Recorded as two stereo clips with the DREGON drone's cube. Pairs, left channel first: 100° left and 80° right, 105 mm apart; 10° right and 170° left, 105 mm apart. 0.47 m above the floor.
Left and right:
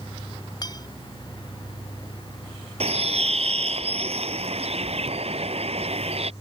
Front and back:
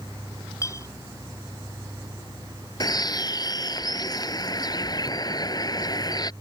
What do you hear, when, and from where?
0.6 s a clink: 50° left
2.8 s a bird: 60° right